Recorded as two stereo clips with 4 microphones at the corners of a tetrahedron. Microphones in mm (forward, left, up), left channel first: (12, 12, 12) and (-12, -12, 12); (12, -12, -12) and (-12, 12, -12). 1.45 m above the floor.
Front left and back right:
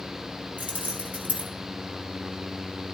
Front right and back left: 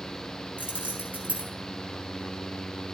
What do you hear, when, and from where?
0.6 s keys jangling: straight behind, 3 m